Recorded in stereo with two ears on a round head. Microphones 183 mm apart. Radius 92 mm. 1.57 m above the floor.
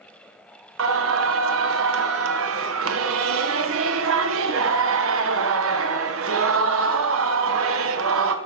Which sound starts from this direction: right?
Singing, at 0.8 s.